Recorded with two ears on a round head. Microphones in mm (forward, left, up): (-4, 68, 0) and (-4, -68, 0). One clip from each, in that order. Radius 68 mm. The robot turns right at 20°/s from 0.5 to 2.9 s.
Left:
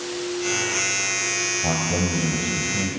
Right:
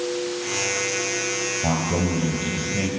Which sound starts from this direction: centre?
A man speaking, at 1.6 s.